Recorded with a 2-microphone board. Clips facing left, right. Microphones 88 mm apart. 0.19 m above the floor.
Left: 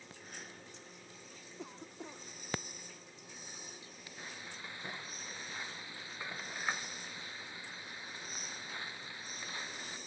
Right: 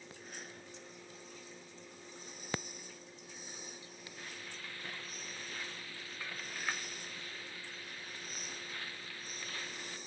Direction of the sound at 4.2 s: 20° left (ahead or behind).